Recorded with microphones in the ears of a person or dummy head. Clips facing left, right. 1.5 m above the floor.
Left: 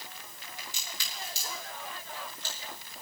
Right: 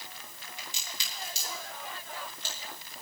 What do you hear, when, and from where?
0.6 s a crack: 20° right (ahead or behind), 2 m